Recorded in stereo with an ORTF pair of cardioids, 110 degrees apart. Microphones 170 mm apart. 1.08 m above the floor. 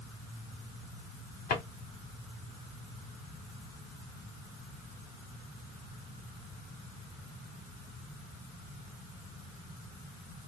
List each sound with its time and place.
1.5 s a drawer: 60° left, 1.2 m